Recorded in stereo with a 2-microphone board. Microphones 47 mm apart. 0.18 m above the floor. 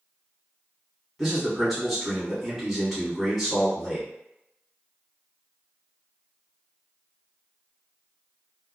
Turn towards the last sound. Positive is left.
turn(degrees=0)  # may be behind; listen again after turning